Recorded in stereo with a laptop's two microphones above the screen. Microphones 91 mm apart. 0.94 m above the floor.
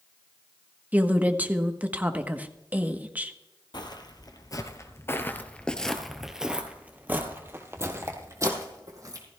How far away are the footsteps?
About 1.5 m.